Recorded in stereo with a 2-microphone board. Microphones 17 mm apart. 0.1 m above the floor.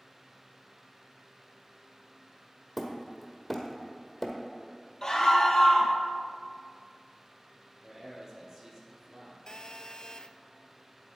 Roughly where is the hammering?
Centre.